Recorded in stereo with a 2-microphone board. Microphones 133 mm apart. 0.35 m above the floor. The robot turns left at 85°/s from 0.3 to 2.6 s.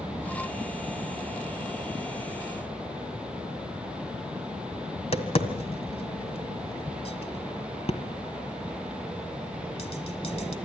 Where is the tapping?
50° left (ahead or behind), 1.6 m.